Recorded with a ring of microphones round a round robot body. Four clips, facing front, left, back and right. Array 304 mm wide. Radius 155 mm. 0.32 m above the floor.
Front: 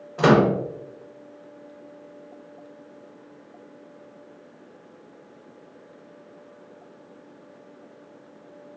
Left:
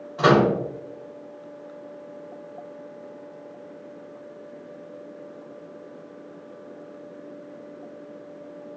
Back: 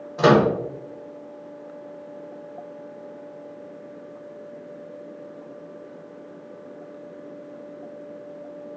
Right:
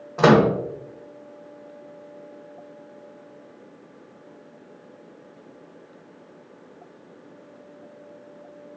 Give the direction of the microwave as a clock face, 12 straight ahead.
3 o'clock.